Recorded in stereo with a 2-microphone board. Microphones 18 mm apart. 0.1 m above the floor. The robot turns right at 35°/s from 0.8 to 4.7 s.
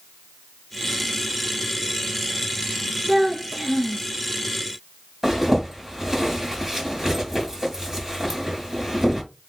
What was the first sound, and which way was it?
A child speaking, 20° right (ahead or behind).